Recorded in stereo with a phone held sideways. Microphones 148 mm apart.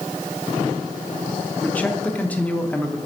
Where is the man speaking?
10° left (ahead or behind), 0.7 m.